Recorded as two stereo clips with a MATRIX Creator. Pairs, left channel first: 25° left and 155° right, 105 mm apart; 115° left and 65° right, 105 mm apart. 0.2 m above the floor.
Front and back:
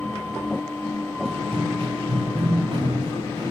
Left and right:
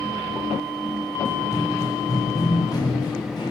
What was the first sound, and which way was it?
Running footsteps, straight behind.